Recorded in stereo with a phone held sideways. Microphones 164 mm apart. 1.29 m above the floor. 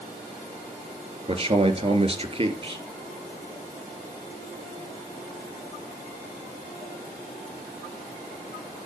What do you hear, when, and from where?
1.3 s a man speaking: 35° right (ahead or behind), 3 m